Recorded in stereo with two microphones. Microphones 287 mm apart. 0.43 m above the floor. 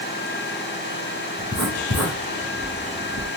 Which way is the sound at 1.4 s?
60° left (ahead or behind).